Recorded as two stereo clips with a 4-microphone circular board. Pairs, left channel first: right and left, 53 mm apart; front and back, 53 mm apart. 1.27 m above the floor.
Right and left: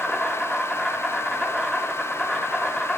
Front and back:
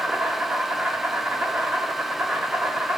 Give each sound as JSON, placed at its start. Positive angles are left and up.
{"t": 0.0, "sound": "an insect", "azimuth_deg": -175, "distance_m": 1.0}